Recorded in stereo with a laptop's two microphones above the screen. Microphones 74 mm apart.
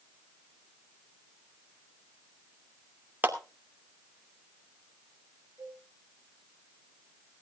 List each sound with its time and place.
3.2 s a clap: 25° right (ahead or behind), 2.5 m
5.6 s a cowbell: 60° right (ahead or behind), 7 m